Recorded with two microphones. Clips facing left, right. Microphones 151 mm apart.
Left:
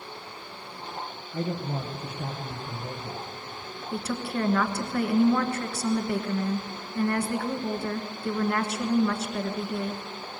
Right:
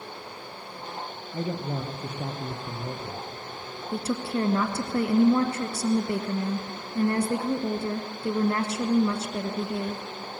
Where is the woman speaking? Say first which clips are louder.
Right 2 dB; 25° right (ahead or behind), 1.2 m.